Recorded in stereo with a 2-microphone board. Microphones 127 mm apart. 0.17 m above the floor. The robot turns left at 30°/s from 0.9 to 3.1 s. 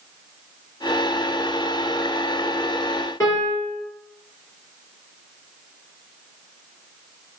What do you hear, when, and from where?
3.2 s a piano: 25° left (ahead or behind), 1.8 m